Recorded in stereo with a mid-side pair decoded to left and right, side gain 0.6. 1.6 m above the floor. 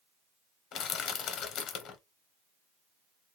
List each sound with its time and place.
0.7 s crushing: 55° left, 0.7 m